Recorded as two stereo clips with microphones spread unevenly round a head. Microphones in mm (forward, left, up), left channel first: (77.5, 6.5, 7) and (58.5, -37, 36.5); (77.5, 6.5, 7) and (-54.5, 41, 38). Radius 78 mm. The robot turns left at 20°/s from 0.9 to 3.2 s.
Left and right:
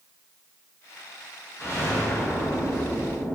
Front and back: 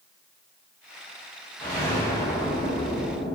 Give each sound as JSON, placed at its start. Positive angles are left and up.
{"t": 1.6, "sound": "an explosion", "azimuth_deg": 65, "distance_m": 1.6}